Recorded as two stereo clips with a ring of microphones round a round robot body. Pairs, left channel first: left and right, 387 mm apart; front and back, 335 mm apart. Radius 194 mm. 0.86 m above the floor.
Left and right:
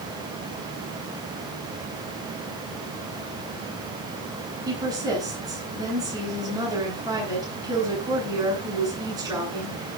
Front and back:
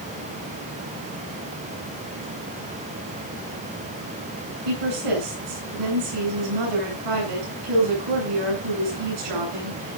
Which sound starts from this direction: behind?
A woman speaking, at 4.7 s.